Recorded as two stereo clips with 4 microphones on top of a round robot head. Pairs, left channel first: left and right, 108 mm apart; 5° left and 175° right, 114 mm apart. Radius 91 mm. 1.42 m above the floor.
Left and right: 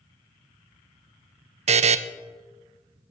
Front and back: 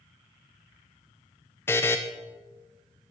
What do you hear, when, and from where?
1.7 s a buzzer: 70° right, 0.5 m